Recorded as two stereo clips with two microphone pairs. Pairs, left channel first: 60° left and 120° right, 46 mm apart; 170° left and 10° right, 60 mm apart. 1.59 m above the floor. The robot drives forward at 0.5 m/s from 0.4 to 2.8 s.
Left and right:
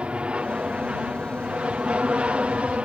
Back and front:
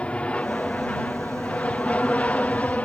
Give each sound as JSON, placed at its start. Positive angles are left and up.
{"t": 0.0, "sound": "an aircraft", "azimuth_deg": -145}